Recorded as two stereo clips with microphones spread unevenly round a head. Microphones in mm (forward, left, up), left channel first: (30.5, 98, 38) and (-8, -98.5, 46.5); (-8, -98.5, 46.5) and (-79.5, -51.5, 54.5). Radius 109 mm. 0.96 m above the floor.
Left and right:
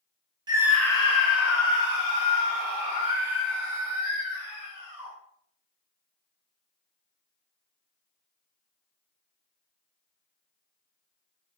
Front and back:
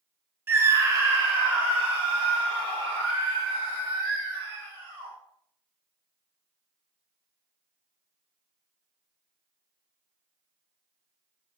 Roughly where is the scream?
Behind.